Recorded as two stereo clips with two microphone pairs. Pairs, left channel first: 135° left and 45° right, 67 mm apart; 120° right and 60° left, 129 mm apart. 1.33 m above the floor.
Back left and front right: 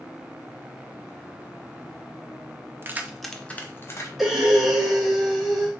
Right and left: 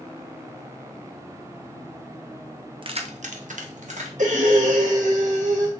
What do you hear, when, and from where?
2.8 s keys jangling: 10° left, 0.6 m; by 4.1 s 85° left, 1.1 m
4.2 s breathing: 40° left, 1.2 m